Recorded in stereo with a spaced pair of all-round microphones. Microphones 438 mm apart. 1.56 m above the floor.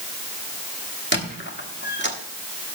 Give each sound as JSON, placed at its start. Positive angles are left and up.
{"t": 1.1, "sound": "a squeak", "side_deg": 25, "distance_m": 1.3}